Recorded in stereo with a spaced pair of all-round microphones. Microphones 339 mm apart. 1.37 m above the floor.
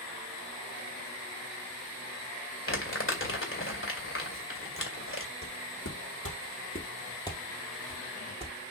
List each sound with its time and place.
2.7 s crumpling: 40° left (ahead or behind), 2.0 m
5.4 s footsteps: 55° left (ahead or behind), 3 m; by 8.7 s 25° right (ahead or behind), 2.5 m